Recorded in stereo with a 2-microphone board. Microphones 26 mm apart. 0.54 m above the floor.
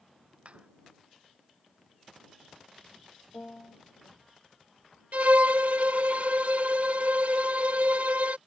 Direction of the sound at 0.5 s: 50° right (ahead or behind).